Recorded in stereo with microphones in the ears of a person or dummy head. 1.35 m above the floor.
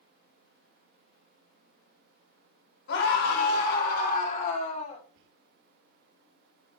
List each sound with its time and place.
2.9 s a scream: 60° left (ahead or behind), 4 m; by 5.0 s 35° left (ahead or behind), 4 m
5.2 s whispering: 70° right (ahead or behind), 3 m